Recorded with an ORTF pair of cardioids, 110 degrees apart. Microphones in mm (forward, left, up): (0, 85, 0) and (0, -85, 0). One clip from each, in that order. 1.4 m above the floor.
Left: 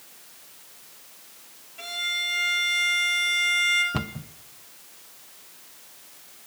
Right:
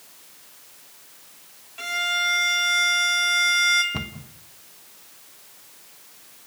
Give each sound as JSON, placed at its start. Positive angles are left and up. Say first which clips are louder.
{"t": 1.8, "sound": "a violin", "louder": "right 4 dB", "azimuth_deg": -50, "distance_m": 3.5}
{"t": 3.9, "sound": "a cupboard door", "louder": "even", "azimuth_deg": 20, "distance_m": 1.1}